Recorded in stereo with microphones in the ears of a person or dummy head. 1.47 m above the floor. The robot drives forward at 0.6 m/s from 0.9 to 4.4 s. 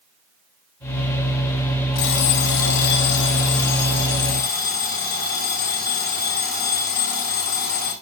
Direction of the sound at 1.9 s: 75° left (ahead or behind).